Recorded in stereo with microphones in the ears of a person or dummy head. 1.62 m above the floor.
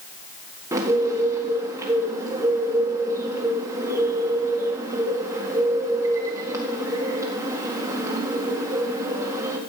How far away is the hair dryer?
I don't hear a hair dryer.